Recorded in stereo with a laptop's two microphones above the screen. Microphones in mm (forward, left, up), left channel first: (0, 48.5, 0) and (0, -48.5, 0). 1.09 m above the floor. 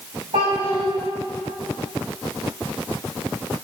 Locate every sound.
0.3 s a child speaking: 75° right (ahead or behind), 4 m